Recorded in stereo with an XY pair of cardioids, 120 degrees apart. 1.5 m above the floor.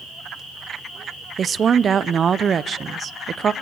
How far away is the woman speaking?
About 0.5 m.